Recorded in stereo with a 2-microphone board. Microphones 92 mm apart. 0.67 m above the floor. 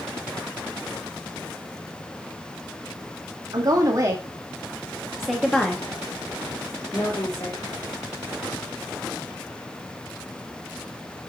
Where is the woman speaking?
45° right (ahead or behind), 1.5 m; by 7.6 s 45° left (ahead or behind), 1.8 m.